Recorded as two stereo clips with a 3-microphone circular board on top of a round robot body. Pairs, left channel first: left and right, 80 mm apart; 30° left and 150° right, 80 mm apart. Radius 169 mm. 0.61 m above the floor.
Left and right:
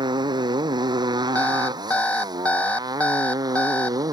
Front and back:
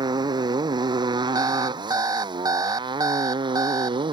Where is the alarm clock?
165° left.